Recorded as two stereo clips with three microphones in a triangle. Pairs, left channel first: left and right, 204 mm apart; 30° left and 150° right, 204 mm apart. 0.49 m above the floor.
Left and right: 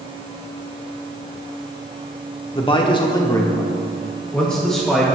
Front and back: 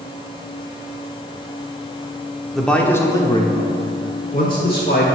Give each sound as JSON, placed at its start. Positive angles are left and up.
{"t": 2.5, "sound": "a man speaking", "azimuth_deg": 115, "distance_m": 0.9}